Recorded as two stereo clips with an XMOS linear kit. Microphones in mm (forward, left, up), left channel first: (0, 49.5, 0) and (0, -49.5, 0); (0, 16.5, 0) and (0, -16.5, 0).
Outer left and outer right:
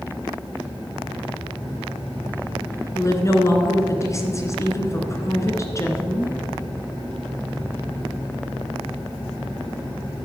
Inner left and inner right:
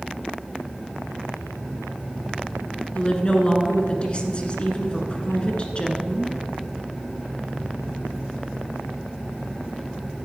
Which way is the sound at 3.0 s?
30° left (ahead or behind).